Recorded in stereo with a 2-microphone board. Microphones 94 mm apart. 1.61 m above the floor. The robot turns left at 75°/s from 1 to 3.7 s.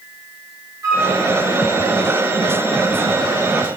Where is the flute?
35° right (ahead or behind), 1.3 m.